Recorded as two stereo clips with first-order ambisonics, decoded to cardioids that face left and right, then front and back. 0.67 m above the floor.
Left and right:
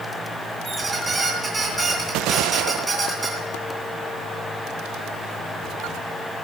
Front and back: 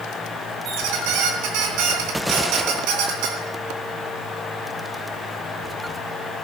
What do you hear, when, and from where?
0.7 s a squeak: 165° right, 3 m